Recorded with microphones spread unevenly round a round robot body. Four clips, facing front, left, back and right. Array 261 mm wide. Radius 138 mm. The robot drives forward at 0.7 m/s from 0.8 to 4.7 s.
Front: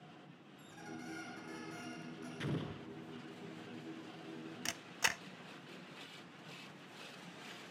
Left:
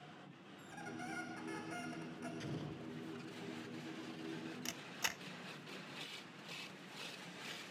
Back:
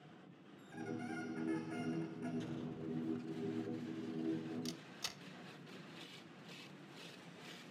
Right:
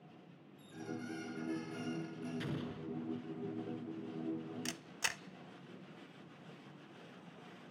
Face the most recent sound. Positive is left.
turn(degrees=-5)